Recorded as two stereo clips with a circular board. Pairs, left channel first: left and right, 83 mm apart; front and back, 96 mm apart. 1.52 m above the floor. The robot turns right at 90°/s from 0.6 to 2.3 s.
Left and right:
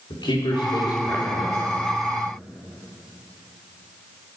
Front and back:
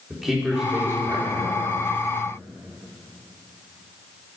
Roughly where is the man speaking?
Left.